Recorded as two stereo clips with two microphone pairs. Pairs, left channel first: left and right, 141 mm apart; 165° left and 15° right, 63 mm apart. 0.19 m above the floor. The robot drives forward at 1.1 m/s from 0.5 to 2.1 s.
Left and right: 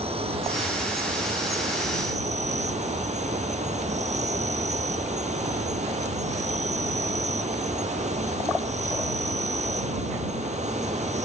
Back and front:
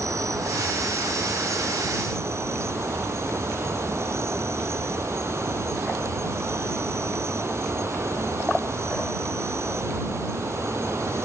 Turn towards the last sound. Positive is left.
turn(degrees=-55)